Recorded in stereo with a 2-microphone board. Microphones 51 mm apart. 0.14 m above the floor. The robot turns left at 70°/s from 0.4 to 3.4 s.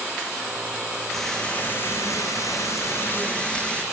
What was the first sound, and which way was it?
Frying, straight behind.